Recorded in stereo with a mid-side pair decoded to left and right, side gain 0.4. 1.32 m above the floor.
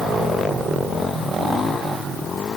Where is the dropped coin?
No dropped coin in this recording.